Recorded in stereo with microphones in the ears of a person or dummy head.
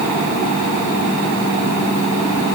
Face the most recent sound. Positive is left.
No sound to turn to.